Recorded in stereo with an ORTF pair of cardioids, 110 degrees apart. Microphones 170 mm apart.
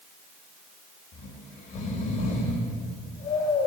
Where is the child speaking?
No child speaking in this recording.